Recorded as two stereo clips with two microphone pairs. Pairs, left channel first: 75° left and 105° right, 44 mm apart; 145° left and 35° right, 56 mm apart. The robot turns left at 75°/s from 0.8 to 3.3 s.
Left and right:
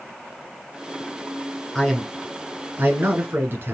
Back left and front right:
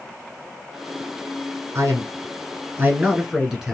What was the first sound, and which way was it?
A man speaking, 5° left.